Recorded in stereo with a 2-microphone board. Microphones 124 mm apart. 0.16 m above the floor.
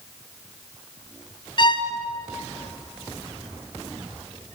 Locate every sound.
1.6 s a violin: 40° left (ahead or behind), 1.7 m